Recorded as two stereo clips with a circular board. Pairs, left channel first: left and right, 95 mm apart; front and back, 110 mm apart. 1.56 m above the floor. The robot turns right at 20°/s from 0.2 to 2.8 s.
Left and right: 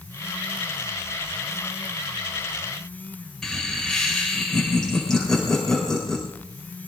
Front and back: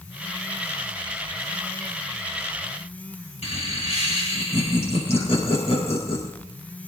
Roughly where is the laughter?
Ahead.